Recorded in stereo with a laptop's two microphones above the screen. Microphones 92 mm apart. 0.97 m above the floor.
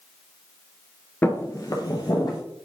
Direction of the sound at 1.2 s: 20° left (ahead or behind).